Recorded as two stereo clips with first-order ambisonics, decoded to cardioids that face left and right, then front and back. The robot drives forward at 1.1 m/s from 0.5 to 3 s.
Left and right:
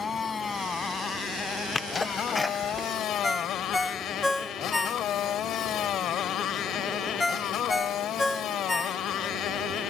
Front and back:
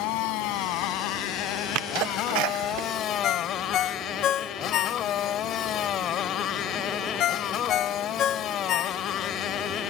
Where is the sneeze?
165° left; by 2.9 s 175° left.